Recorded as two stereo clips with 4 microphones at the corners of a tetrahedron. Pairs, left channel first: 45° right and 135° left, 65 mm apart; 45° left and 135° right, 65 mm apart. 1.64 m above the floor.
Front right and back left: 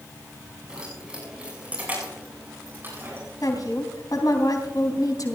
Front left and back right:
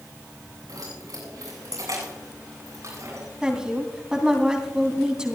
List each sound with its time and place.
0.7 s keys jangling: 150° right, 8 m; by 3.2 s 175° right, 9 m
3.4 s a woman speaking: 55° right, 3 m